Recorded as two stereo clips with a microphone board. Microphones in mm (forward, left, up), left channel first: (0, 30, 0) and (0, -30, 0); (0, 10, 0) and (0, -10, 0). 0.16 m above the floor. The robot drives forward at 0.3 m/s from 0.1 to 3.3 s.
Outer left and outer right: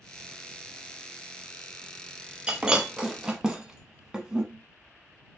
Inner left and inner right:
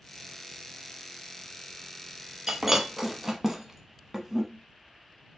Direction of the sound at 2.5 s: 15° right (ahead or behind).